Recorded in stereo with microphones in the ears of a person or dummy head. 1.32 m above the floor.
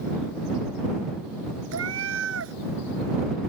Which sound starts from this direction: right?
A cat meowing, at 1.7 s.